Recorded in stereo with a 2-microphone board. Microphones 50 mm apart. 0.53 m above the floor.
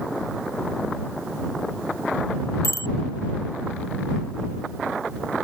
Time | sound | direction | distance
2.6 | a bicycle bell | 80° left | ?